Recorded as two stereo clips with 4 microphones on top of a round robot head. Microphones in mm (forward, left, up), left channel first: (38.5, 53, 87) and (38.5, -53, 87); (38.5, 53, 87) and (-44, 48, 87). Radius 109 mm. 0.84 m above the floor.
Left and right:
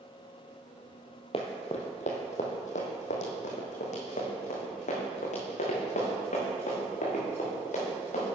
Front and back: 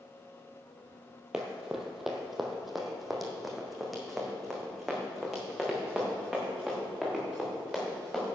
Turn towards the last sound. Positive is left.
turn(degrees=90)